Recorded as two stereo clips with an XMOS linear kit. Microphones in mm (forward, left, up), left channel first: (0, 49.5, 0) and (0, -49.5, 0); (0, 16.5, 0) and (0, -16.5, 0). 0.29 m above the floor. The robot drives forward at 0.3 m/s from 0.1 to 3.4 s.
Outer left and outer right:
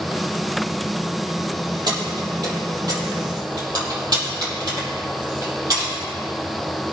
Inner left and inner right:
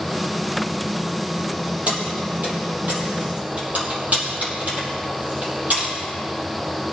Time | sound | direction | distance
1.9 | keys jangling | 50° right (ahead or behind) | 5 m